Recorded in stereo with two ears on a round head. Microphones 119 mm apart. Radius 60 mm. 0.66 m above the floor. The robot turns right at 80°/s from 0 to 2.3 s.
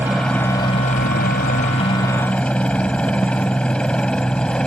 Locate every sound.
0.0 s a helicopter: 15° right (ahead or behind); by 4.7 s 5° left (ahead or behind)